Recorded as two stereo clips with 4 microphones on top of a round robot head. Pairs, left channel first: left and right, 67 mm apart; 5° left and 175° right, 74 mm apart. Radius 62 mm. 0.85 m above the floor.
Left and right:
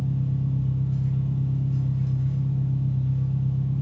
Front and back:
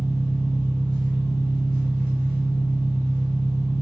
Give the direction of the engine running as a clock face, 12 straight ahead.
12 o'clock.